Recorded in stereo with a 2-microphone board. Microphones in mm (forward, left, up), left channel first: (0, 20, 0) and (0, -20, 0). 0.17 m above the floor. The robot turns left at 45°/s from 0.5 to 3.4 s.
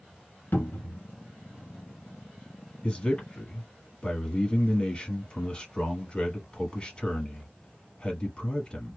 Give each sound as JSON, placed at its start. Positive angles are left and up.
{"t": 0.5, "sound": "a cupboard door", "side_deg": 55, "distance_m": 1.0}
{"t": 2.8, "sound": "a man speaking", "side_deg": 25, "distance_m": 1.2}